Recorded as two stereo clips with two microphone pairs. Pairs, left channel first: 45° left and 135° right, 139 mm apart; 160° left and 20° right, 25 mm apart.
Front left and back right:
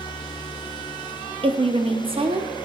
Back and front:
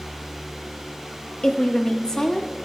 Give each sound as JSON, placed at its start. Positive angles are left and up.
{"t": 1.4, "sound": "a woman speaking", "azimuth_deg": -155, "distance_m": 0.9}